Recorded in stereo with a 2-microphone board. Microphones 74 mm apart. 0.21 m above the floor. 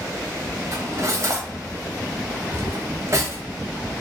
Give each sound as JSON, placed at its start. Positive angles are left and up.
{"t": 0.7, "sound": "cutlery clinking", "side_deg": -40, "distance_m": 0.9}